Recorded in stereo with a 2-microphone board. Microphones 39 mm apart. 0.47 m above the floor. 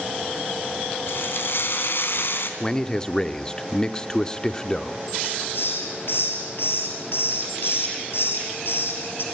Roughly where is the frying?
Left.